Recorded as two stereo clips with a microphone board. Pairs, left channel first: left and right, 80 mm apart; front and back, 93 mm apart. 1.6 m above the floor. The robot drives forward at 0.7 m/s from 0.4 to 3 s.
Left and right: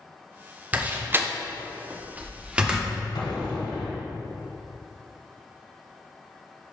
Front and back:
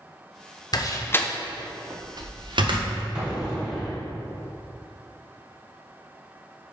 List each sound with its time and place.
0.7 s a door slam: 25° right, 0.7 m; by 2.9 s 165° right, 1.1 m
3.1 s an explosion: 100° left, 1.4 m